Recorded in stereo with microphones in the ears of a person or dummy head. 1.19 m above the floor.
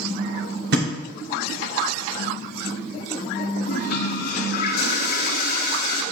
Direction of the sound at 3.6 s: 55° left (ahead or behind).